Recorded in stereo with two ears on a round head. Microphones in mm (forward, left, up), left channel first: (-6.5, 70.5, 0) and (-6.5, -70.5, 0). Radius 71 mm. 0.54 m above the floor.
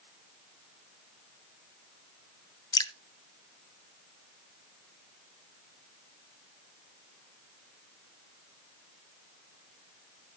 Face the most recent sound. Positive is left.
turn(degrees=25)  # may be behind; listen again after turning